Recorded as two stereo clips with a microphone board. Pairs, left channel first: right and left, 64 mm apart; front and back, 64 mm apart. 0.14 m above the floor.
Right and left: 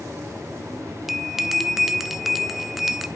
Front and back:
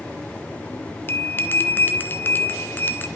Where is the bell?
5° left, 0.6 m.